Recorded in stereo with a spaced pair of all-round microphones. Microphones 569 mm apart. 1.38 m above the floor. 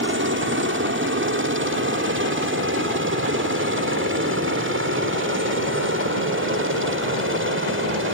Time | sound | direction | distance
0.0 | a helicopter | 20° right (ahead or behind) | ?